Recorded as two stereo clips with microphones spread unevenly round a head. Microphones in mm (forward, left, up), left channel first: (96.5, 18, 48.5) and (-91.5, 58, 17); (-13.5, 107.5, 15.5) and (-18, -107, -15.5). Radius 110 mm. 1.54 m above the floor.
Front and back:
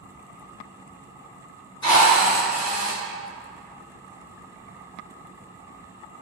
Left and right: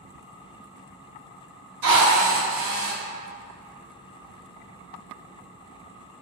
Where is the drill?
65° right, 1.1 m.